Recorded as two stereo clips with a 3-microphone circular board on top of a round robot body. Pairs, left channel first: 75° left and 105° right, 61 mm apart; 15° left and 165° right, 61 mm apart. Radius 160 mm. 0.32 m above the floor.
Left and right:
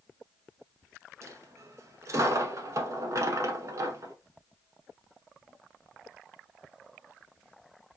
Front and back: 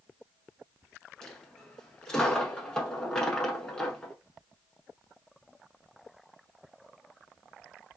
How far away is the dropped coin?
About 0.8 m.